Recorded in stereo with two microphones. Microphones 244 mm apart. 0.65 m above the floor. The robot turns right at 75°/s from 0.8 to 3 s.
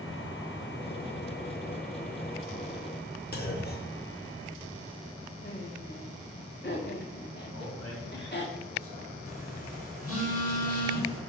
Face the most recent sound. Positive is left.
turn(degrees=65)  # may be behind; listen again after turning